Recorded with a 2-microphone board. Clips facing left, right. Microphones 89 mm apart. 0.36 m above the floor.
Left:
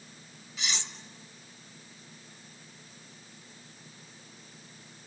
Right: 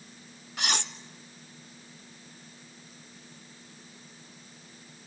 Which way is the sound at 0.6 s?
60° right (ahead or behind).